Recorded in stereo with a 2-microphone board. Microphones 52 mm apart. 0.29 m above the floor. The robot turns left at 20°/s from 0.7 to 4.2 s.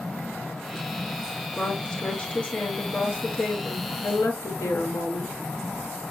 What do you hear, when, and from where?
1.5 s a woman speaking: 175° left, 5 m; by 6.0 s 120° left, 5 m